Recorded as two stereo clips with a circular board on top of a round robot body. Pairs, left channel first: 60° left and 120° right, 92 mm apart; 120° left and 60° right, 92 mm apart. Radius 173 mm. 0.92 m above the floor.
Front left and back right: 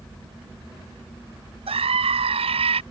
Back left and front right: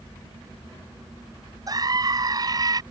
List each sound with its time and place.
1.7 s a scream: 110° right